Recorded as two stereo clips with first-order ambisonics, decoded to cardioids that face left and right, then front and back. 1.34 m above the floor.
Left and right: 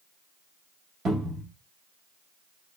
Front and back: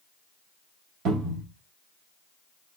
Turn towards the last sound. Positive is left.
turn(degrees=-150)